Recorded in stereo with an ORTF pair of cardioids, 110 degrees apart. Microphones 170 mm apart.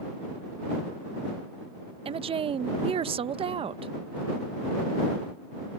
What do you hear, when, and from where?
2.0 s a woman speaking: 35° right